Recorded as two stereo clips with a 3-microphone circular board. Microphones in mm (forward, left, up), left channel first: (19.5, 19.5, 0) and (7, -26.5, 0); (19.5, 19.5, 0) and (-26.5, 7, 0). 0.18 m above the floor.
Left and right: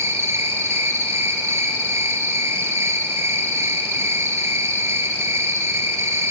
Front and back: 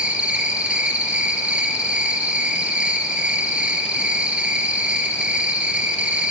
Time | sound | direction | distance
0.0 | an insect | 100° right | 1.2 m